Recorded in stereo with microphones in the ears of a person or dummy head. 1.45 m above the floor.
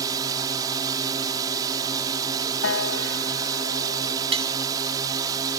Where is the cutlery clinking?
35° right (ahead or behind).